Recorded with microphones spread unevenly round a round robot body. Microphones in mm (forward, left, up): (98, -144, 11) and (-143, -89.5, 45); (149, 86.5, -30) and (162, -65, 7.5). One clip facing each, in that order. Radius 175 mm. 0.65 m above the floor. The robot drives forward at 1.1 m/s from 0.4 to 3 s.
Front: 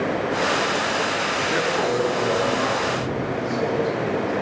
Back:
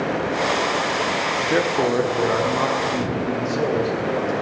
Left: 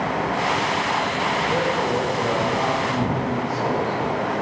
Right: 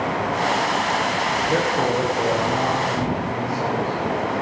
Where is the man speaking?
145° right, 1.0 m; by 4.3 s 170° right, 2.5 m.